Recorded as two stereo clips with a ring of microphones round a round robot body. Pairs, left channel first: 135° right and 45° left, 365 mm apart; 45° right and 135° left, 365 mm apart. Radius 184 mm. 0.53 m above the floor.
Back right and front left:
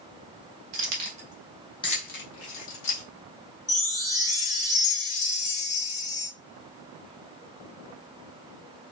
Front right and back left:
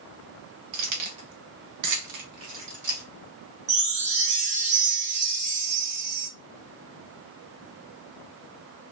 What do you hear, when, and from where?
0.7 s keys jangling: 100° left, 1.1 m; by 3.0 s 160° right, 1.3 m
3.7 s a chime: 170° left, 1.2 m